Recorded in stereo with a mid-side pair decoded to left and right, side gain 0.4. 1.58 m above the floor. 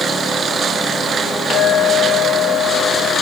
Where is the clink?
55° left, 3.5 m.